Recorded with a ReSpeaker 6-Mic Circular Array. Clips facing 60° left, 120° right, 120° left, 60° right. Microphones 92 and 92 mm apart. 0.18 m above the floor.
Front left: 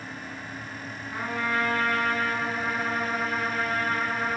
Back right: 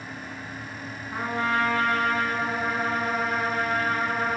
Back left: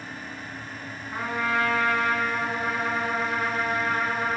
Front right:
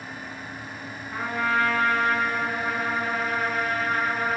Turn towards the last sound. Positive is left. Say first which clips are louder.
# back right 3 dB, front right 1 dB
turn(degrees=-175)